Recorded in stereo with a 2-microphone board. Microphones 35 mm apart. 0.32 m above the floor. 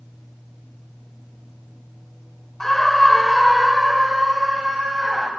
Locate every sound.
2.6 s a scream: 10° left (ahead or behind), 1.0 m; by 5.3 s 20° right (ahead or behind), 1.7 m